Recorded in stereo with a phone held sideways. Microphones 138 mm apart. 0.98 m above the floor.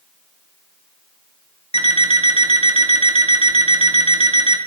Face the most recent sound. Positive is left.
turn(degrees=45)  # may be behind; listen again after turning